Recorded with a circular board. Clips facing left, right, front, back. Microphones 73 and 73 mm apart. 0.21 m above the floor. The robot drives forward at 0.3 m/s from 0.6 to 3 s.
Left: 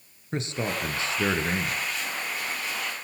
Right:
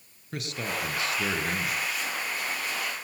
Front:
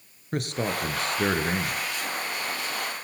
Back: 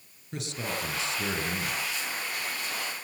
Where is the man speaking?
30° left, 3.5 m; by 1.8 s 35° left, 3 m.